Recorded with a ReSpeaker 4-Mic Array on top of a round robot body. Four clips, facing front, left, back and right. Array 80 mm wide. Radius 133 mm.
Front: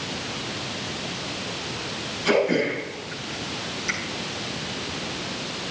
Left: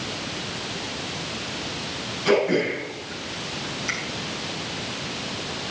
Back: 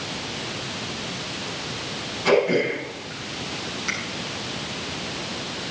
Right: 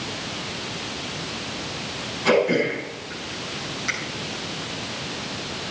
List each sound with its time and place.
2.2 s throat clearing: 130° right, 8 m